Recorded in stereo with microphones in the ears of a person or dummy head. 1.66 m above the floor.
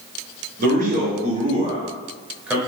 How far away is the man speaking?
About 1.5 m.